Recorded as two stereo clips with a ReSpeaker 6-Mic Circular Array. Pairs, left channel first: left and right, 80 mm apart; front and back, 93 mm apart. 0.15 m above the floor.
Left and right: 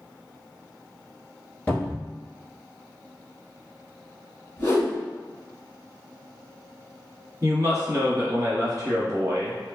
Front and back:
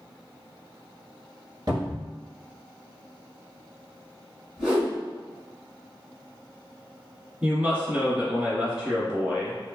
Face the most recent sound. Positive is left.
turn(degrees=-115)